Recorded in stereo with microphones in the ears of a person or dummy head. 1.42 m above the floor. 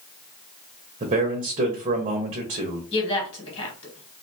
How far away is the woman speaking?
About 1.5 m.